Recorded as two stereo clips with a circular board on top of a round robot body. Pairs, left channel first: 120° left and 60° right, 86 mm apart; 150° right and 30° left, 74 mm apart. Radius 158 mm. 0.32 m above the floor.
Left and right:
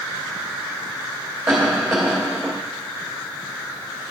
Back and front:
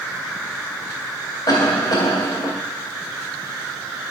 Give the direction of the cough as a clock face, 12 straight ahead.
5 o'clock.